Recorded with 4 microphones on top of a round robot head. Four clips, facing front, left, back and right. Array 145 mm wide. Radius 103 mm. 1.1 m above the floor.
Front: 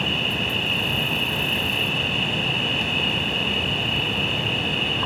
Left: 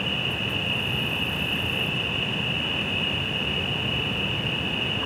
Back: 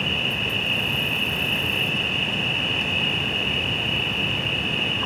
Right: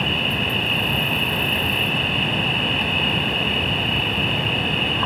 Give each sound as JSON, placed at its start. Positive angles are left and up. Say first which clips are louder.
{"t": 0.0, "sound": "an insect", "louder": "right 6 dB, front 2 dB", "azimuth_deg": -75}